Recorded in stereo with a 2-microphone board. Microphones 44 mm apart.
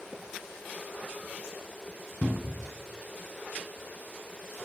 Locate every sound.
2.2 s a cupboard door: 30° right (ahead or behind), 1.1 m